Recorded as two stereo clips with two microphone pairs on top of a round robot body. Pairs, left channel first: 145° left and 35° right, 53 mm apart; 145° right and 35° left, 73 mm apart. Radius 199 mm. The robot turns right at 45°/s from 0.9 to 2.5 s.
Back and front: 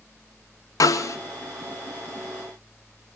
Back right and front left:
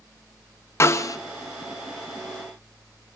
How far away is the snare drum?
About 0.6 m.